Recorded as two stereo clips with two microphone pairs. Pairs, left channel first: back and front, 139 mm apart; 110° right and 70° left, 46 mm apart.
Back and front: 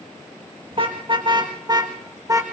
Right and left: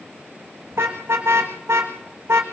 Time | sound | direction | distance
0.7 | a car horn | 50° left | 5.5 m